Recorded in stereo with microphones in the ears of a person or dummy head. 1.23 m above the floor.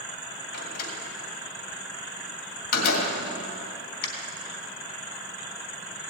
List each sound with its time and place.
0.5 s a door slam: 55° left (ahead or behind), 2.5 m